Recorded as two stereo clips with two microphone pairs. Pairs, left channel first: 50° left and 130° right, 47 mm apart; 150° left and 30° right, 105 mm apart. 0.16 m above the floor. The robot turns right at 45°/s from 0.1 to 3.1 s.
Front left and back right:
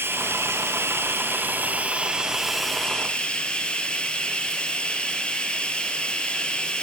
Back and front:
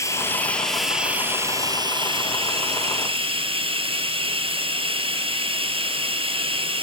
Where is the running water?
150° right, 3 m; by 6.8 s 15° right, 3 m.